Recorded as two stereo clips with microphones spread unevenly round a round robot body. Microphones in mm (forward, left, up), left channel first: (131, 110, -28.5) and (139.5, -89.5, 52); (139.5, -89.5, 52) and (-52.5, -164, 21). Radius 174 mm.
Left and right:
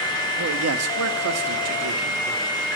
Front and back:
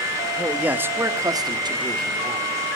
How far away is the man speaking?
About 1.5 m.